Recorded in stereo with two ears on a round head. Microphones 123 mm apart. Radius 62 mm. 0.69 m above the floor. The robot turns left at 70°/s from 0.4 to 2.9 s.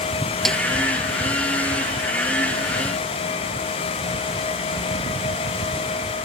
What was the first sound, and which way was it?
A snare drum, centre (ahead or behind).